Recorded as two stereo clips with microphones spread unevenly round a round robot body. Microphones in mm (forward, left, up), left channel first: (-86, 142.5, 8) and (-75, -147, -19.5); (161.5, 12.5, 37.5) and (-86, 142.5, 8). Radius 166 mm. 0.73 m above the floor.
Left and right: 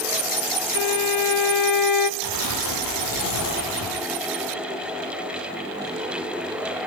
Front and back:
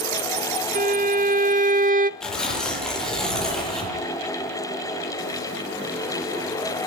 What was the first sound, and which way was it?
A violin, 90° left.